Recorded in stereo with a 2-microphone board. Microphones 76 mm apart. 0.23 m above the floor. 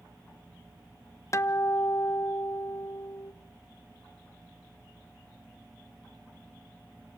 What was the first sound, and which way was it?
A guitar, 40° left (ahead or behind).